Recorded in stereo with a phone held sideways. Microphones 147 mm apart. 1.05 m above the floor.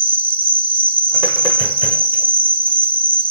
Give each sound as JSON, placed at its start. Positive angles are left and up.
{"t": 0.0, "sound": "an insect", "side_deg": -75}